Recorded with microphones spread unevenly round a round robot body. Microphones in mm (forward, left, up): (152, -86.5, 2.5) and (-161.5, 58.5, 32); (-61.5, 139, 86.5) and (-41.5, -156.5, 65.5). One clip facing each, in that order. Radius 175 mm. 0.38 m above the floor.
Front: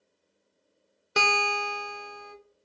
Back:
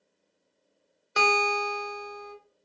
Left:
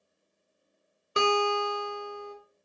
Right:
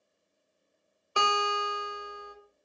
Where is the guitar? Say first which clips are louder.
Back 3 dB, left 7 dB; 25° left, 0.7 m.